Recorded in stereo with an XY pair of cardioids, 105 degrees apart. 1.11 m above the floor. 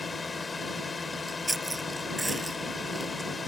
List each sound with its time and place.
0.0 s a drone: 25° left
1.1 s chewing: 15° right